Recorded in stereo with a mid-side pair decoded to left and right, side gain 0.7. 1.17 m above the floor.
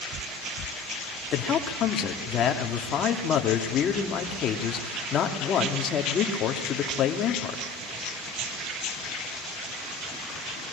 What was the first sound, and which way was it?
A man speaking, 40° left.